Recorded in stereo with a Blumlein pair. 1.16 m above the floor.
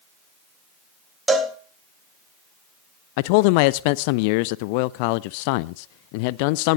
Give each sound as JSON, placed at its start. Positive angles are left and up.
{"t": 1.3, "sound": "a cowbell", "azimuth_deg": -5, "distance_m": 2.0}
{"t": 3.2, "sound": "a man speaking", "azimuth_deg": 45, "distance_m": 0.5}